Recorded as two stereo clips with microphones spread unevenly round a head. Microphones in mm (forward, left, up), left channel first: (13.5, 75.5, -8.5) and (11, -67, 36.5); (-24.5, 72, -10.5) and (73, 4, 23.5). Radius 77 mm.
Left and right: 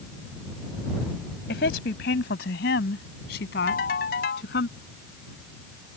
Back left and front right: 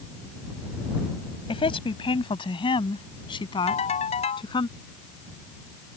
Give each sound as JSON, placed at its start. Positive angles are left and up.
{"t": 1.5, "sound": "a woman speaking", "azimuth_deg": 100}
{"t": 3.7, "sound": "a ringtone", "azimuth_deg": 115}